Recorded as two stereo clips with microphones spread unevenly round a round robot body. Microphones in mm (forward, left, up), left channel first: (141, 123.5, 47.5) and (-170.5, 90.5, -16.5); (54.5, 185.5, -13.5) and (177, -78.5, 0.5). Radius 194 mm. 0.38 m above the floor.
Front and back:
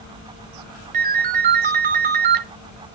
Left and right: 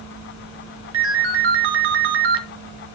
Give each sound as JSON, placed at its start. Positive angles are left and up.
{"t": 0.9, "sound": "a ringtone", "azimuth_deg": -115, "distance_m": 0.8}